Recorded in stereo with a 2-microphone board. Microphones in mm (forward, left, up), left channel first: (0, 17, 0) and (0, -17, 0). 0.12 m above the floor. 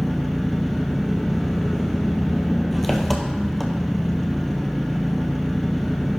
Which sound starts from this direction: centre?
An engine running, at 0.0 s.